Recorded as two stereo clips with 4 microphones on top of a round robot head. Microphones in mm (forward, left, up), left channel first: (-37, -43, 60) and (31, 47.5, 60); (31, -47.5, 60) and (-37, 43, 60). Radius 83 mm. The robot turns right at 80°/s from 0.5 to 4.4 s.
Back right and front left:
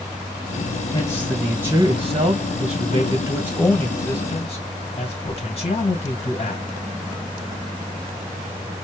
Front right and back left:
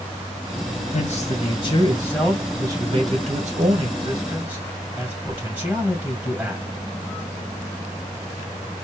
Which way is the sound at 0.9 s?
75° right.